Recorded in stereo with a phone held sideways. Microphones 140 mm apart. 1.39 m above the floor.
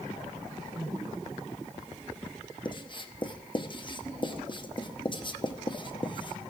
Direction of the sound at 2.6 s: 35° left (ahead or behind).